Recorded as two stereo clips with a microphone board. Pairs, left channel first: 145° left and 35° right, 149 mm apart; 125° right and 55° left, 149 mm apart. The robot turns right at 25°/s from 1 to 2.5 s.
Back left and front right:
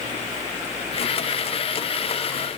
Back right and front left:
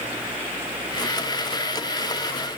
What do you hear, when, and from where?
Only background noise.